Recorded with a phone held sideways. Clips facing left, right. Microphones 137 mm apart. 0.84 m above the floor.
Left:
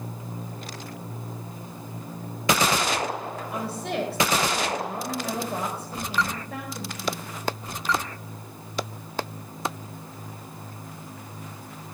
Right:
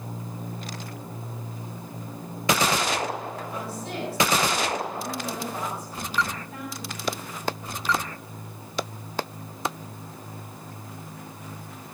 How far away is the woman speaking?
About 4 m.